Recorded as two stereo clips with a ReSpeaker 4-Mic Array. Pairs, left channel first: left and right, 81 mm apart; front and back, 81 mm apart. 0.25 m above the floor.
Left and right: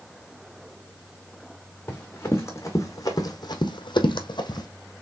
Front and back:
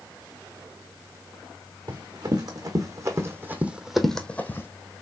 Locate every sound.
1.9 s running footsteps: 150° left, 1.5 m; by 4.7 s 60° left, 0.8 m